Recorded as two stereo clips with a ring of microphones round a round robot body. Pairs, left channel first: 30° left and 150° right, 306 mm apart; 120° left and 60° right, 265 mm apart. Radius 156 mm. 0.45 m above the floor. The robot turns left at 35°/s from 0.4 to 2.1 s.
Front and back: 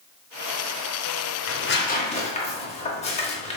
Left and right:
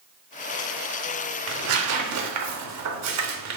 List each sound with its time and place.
1.5 s tearing paper: 15° right, 0.7 m; by 3.6 s 40° right, 0.7 m